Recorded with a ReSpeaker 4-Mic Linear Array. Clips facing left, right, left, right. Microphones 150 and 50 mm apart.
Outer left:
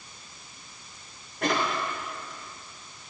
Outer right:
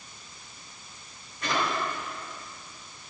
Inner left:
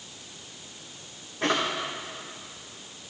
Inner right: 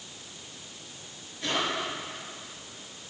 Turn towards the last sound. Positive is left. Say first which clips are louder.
# outer left 3 dB, inner left 4 dB
turn(degrees=60)  # may be behind; listen again after turning